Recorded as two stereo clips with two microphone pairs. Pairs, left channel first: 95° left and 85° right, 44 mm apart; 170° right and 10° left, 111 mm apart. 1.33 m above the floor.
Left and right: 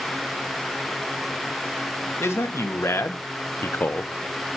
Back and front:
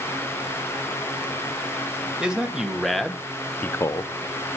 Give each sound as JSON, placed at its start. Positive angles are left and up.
{"t": 2.2, "sound": "a man speaking", "azimuth_deg": 90, "distance_m": 1.5}